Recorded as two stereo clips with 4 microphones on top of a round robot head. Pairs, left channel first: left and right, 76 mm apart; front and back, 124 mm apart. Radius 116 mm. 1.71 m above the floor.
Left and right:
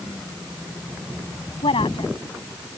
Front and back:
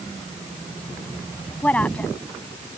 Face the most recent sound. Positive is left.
turn(degrees=80)